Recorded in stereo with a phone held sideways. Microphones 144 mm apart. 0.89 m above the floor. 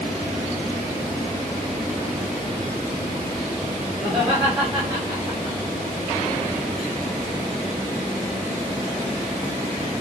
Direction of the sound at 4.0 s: 5° right (ahead or behind).